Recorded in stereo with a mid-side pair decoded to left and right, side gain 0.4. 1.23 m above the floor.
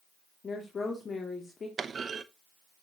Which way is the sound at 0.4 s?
45° left.